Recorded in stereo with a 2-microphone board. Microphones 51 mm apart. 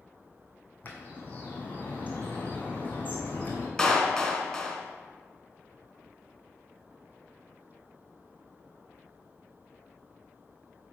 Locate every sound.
0.8 s a bird: 30° left (ahead or behind), 2 m
3.8 s a clap: 10° left (ahead or behind), 0.8 m